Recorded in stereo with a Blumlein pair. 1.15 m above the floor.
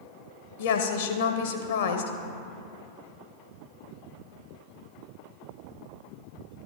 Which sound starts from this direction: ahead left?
A woman speaking, at 0.6 s.